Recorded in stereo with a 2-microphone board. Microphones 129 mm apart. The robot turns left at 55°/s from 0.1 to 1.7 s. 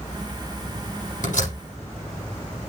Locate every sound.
1.2 s a door slam: 85° left, 8 m; by 1.6 s 65° left (ahead or behind), 8 m